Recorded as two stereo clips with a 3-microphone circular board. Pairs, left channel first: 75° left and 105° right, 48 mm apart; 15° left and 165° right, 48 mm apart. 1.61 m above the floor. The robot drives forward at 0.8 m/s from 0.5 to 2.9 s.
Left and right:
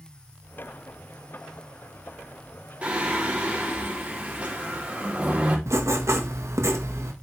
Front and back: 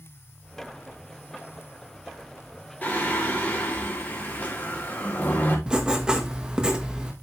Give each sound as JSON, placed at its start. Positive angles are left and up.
{"t": 2.8, "sound": "singing", "azimuth_deg": -45, "distance_m": 3.5}
{"t": 5.7, "sound": "writing", "azimuth_deg": -95, "distance_m": 1.7}